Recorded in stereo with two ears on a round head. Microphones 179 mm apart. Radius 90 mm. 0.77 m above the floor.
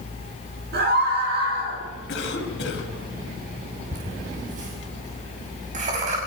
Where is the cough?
65° left (ahead or behind), 6 m.